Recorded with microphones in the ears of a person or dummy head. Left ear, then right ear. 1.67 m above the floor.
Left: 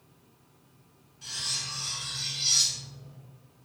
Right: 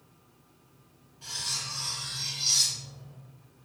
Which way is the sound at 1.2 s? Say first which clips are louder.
Left 1 dB; 5° right (ahead or behind).